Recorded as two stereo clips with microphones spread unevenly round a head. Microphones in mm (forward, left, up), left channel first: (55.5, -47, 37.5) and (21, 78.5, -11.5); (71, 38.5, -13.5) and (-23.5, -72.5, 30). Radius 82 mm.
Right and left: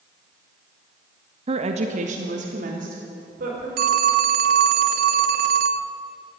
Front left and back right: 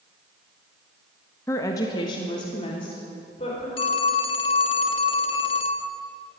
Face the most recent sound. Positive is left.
turn(degrees=110)